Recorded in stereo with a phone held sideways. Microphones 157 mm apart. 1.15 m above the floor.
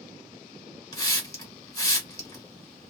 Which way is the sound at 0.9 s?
20° left (ahead or behind).